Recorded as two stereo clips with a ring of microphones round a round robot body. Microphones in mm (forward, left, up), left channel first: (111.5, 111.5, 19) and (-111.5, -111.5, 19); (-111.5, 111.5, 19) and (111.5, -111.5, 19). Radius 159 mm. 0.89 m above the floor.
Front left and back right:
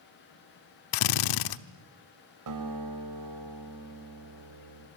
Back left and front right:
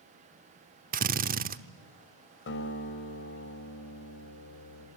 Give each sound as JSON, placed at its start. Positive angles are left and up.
{"t": 0.9, "sound": "a drill", "azimuth_deg": 20, "distance_m": 1.0}
{"t": 2.5, "sound": "a guitar", "azimuth_deg": -170, "distance_m": 4.5}